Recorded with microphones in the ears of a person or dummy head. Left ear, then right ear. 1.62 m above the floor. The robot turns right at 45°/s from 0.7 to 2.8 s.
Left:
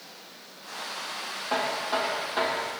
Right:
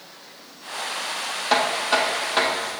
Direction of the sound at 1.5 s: 80° right.